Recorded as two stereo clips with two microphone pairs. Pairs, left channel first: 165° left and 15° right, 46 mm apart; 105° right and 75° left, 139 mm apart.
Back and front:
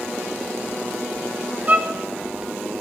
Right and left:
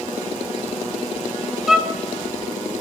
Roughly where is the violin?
Ahead.